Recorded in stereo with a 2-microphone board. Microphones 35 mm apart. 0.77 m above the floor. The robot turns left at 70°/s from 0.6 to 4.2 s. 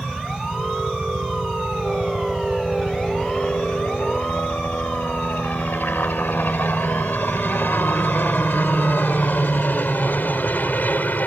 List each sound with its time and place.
0.0 s a helicopter: 30° right (ahead or behind); by 11.3 s 55° left (ahead or behind)